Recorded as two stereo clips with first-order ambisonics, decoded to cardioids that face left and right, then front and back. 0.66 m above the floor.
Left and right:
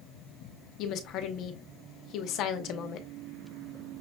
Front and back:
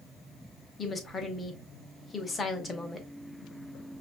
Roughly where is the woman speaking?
Left.